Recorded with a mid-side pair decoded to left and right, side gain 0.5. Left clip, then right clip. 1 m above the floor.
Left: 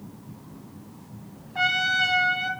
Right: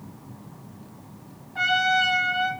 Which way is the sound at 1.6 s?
25° left.